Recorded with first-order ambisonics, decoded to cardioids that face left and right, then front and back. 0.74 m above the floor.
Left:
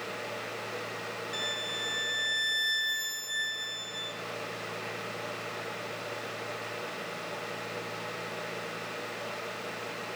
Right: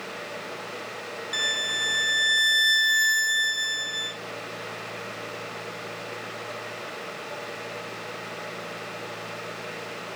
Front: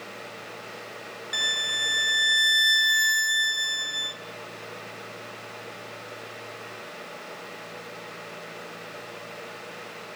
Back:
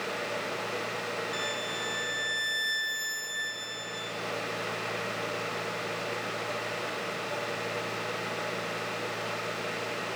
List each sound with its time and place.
1.3 s a violin: 50° right, 0.6 m